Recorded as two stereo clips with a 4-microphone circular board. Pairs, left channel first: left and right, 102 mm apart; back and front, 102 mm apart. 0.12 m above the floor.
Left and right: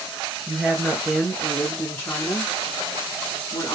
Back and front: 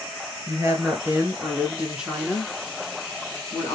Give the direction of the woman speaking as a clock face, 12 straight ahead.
1 o'clock.